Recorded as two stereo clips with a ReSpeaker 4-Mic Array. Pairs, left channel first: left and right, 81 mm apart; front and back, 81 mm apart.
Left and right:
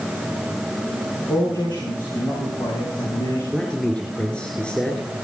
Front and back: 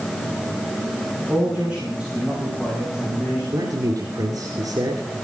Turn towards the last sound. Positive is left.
turn(degrees=165)